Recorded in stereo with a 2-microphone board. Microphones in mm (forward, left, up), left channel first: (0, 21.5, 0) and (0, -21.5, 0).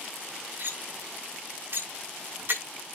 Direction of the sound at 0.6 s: 60° right (ahead or behind).